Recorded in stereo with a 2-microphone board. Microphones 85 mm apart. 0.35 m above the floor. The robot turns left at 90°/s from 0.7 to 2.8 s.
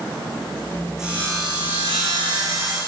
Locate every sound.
1.0 s sawing: 5° right, 8.5 m; by 2.8 s 165° right, 8.5 m